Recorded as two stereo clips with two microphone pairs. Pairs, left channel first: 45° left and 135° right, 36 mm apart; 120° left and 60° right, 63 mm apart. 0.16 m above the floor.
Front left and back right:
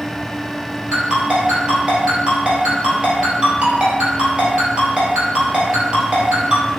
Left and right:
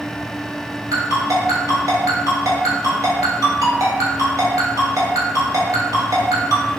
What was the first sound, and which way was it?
A ringtone, 80° right.